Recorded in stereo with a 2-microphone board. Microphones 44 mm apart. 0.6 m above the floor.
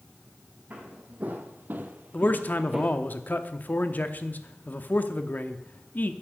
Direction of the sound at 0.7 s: 35° right (ahead or behind).